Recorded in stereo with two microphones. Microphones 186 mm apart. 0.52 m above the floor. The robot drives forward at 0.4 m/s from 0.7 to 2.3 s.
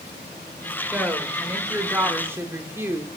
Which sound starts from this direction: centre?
A woman speaking, at 0.9 s.